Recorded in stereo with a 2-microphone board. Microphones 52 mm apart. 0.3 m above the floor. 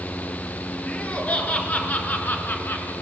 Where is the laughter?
25° left (ahead or behind), 4.5 m; by 2.9 s 40° left (ahead or behind), 3.5 m.